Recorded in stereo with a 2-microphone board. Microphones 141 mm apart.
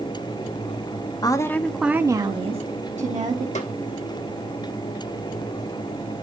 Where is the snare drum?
55° left (ahead or behind), 1.2 m.